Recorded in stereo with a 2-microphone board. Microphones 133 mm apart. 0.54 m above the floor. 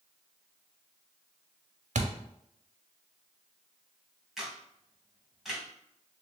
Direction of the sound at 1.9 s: 70° right (ahead or behind).